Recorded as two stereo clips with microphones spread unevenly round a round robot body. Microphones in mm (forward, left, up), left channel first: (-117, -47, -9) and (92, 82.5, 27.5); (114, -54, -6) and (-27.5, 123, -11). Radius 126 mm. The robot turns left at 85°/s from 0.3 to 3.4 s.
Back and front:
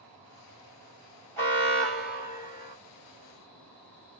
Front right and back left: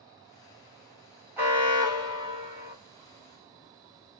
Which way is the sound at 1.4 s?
170° right.